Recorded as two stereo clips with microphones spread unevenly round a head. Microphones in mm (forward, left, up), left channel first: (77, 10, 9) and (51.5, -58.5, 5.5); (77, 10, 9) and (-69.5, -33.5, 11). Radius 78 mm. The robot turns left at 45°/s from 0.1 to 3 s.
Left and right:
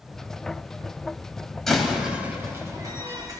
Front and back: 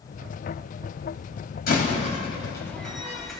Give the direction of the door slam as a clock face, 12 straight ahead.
12 o'clock.